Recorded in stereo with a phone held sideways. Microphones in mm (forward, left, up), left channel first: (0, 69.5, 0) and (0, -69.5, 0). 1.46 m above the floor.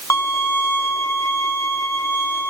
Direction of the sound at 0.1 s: 20° left (ahead or behind).